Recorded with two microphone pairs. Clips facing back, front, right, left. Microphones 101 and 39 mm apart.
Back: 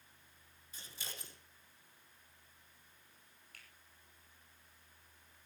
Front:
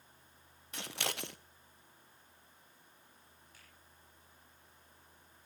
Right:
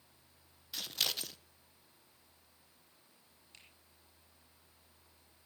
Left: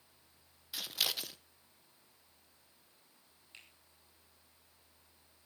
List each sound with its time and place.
0.7 s scissors: 5° left, 0.7 m
3.5 s a finger snap: 160° left, 6 m